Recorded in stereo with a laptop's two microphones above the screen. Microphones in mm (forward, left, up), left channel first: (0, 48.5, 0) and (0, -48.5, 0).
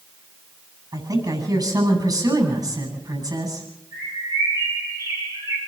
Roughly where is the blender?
No blender in this recording.